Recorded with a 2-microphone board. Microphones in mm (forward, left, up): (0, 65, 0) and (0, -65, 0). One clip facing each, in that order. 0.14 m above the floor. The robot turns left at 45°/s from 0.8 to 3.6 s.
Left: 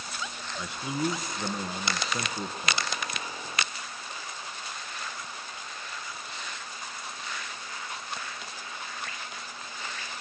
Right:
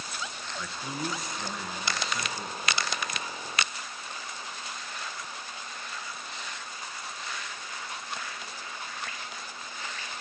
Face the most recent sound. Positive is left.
turn(degrees=30)